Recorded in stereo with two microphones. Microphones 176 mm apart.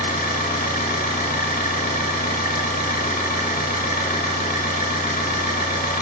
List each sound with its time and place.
0.0 s an engine running: 55° left (ahead or behind), 0.7 m